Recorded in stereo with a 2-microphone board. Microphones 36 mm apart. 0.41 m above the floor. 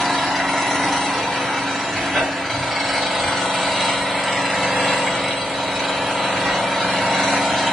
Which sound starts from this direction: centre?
An engine running, at 0.0 s.